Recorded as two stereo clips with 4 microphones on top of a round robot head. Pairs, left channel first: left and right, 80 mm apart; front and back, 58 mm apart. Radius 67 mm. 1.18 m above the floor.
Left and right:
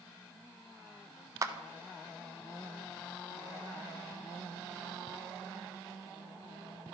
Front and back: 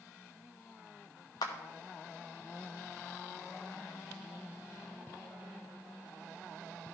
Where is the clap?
35° right, 0.7 m.